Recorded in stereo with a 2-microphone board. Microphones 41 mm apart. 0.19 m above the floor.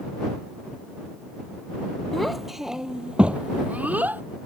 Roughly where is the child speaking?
Centre.